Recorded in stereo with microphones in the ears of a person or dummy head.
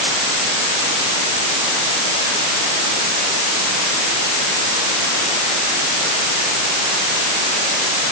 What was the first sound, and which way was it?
Only background noise.